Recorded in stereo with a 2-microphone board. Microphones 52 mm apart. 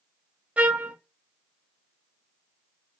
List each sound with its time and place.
0.6 s a trumpet: 25° right (ahead or behind), 0.8 m